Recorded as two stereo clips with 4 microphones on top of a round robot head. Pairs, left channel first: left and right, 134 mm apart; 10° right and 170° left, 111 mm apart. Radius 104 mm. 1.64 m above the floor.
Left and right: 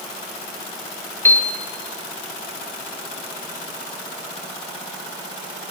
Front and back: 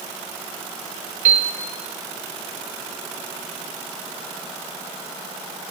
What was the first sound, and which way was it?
A piano, 165° left.